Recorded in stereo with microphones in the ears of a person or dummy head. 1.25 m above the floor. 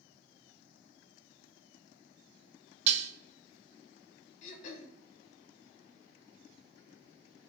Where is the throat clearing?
45° left (ahead or behind), 0.7 m.